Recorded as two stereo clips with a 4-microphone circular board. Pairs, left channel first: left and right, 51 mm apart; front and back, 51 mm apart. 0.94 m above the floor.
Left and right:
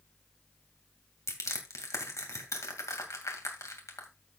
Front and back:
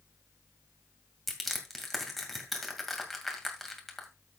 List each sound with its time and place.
1.3 s crushing: 90° left, 2.5 m